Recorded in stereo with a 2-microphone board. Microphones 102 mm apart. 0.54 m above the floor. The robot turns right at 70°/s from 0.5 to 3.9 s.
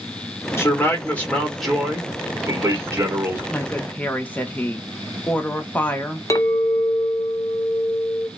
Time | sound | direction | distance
0.6 | a man speaking | 25° left (ahead or behind) | 1.2 m
3.5 | a woman speaking | 20° left (ahead or behind) | 0.6 m
6.3 | a clink | 35° left (ahead or behind) | 0.6 m